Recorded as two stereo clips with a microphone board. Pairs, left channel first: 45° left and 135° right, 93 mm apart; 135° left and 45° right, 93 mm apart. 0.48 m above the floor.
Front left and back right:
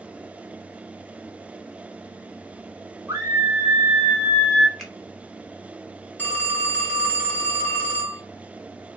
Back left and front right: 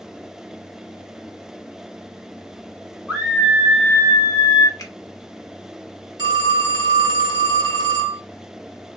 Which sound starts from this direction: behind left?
A finger snap, at 4.8 s.